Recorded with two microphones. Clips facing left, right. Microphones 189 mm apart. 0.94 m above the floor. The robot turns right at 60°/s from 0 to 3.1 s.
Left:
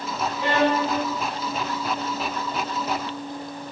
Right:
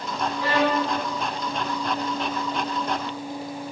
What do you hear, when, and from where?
0.4 s a violin: 25° left, 0.7 m; by 0.9 s 55° left, 0.7 m